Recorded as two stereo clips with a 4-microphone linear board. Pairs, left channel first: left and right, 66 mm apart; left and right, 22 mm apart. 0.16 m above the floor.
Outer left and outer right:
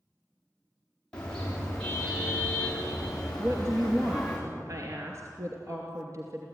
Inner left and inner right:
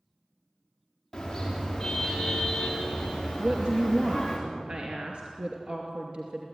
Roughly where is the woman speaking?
Right.